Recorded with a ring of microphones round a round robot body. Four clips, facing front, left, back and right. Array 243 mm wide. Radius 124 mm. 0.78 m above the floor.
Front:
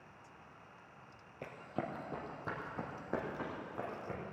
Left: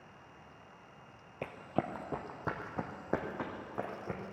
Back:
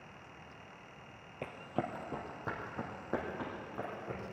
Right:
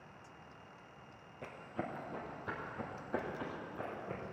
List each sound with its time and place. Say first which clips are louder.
1.4 s running footsteps: left 7 dB, back 3 dB; 110° left, 1.2 m; by 4.2 s 90° left, 3.5 m